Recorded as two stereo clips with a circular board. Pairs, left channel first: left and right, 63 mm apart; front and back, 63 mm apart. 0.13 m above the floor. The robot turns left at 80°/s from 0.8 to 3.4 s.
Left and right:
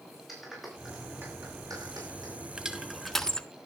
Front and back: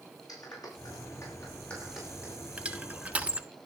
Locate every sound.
0.3 s a clap: straight ahead, 8 m; by 2.3 s 125° right, 8 m
2.6 s crushing: 145° right, 1.3 m; by 3.5 s 150° left, 1.3 m